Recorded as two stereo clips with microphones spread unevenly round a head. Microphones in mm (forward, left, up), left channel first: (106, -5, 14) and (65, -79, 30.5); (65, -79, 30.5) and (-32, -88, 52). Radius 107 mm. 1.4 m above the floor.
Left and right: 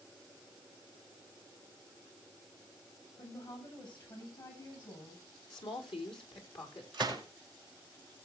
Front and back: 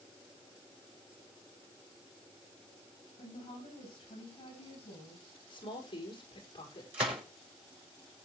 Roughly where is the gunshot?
Behind left.